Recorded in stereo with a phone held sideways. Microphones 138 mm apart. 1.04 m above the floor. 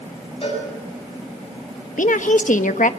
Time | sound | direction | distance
0.4 | a cowbell | 45° left (ahead or behind) | 8.5 m
2.0 | a woman speaking | 70° left (ahead or behind) | 1.2 m